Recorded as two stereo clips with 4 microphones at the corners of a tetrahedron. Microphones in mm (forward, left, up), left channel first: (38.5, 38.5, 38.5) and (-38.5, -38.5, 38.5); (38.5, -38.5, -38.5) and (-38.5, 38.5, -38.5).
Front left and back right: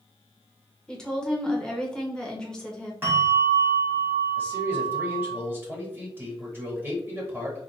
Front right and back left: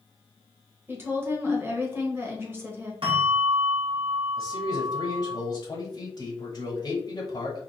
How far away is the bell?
About 1.8 m.